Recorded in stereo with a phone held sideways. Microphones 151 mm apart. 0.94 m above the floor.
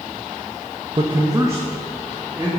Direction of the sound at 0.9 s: 35° right (ahead or behind).